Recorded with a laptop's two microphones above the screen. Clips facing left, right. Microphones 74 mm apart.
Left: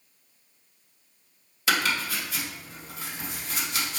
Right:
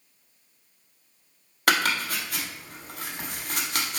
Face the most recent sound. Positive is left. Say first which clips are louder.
# right 2 dB
turn(degrees=-55)  # may be behind; listen again after turning